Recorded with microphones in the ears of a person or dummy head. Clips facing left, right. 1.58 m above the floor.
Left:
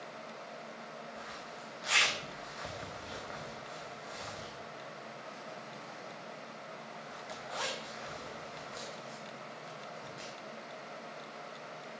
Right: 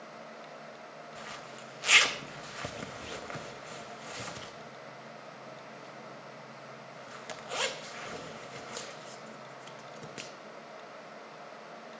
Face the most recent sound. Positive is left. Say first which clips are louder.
# right 1 dB
turn(degrees=-45)  # may be behind; listen again after turning